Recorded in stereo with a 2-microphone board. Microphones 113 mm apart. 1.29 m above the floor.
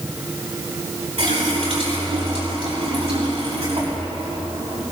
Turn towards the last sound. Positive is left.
turn(degrees=-80)